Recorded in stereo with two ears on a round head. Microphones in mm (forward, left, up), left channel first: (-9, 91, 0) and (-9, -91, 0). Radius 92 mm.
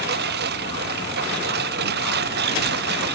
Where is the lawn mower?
55° right (ahead or behind).